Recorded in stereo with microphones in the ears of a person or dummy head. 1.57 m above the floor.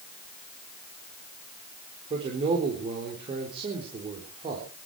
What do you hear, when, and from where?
2.1 s a man speaking: 30° right (ahead or behind), 4.5 m